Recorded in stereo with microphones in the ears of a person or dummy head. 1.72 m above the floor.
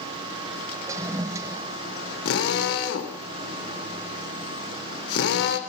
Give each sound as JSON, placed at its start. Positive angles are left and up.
{"t": 0.9, "sound": "a toilet flushing", "side_deg": -15, "distance_m": 0.9}
{"t": 2.2, "sound": "a drill", "side_deg": 65, "distance_m": 3.0}